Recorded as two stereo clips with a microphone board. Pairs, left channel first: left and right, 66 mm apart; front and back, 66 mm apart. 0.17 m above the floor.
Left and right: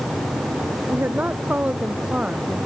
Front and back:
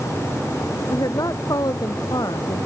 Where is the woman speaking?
25° right; by 2.7 s 10° right.